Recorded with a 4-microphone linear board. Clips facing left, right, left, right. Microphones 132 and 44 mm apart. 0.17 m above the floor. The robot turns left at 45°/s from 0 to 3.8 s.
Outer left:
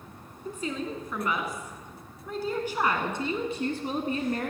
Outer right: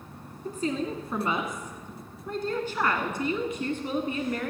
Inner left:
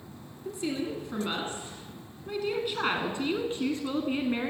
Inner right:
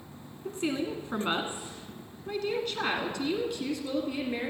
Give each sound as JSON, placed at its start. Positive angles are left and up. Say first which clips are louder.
{"t": 0.5, "sound": "a woman speaking", "louder": "outer right 4 dB, inner right 1 dB", "azimuth_deg": -100, "distance_m": 1.8}